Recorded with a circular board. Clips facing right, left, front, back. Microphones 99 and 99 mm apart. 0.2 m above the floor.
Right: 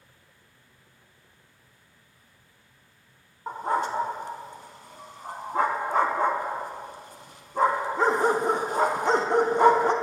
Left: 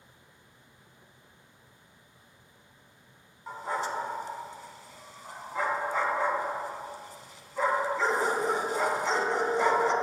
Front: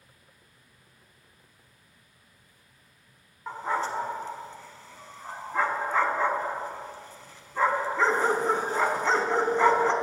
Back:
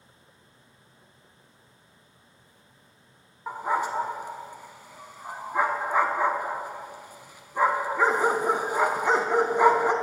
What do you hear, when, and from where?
3.5 s a dog barking: 105° right, 0.6 m